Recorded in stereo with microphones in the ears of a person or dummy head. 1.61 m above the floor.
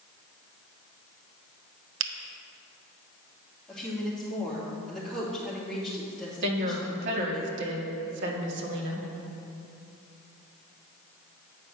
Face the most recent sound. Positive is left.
turn(degrees=-65)  # may be behind; listen again after turning